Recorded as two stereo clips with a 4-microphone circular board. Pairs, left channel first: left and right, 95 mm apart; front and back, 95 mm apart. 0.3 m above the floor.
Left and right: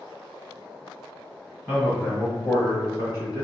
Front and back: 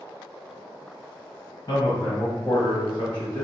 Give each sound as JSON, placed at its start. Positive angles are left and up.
{"t": 1.7, "sound": "a man speaking", "azimuth_deg": 20, "distance_m": 1.2}